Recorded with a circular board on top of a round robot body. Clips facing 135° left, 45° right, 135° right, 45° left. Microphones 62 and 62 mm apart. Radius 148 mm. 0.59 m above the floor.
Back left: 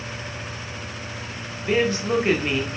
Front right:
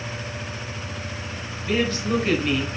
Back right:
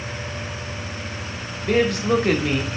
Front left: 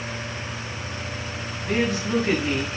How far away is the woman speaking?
About 1.6 m.